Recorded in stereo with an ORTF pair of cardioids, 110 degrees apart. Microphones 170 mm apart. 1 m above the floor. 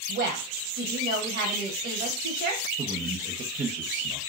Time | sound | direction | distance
0.1 | a woman speaking | 65° right | 1.1 m
2.8 | a man speaking | 45° right | 0.9 m